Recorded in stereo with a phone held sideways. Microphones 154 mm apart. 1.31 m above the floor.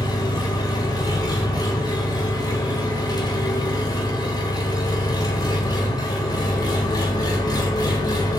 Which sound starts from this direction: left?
An engine running, at 0.0 s.